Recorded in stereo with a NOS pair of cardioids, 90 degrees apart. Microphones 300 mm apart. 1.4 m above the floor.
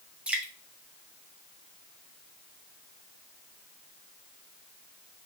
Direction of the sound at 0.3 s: 5° right.